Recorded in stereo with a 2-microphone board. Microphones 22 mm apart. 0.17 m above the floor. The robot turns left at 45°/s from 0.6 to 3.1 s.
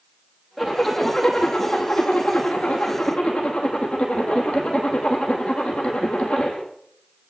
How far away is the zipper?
About 7.5 m.